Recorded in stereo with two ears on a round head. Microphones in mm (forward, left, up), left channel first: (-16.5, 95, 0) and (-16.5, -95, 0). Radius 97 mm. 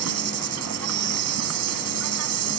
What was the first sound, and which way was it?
An insect, 80° right.